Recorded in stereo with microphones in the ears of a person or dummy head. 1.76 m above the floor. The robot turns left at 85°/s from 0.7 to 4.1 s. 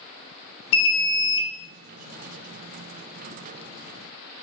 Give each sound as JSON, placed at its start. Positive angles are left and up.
{"t": 0.7, "sound": "an alarm", "azimuth_deg": 115, "distance_m": 0.8}